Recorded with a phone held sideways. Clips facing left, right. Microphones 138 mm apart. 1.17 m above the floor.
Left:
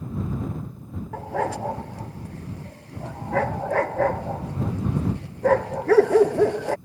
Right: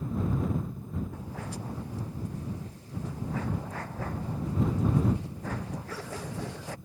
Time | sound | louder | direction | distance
1.1 | a dog barking | left 12 dB | 85° left | ?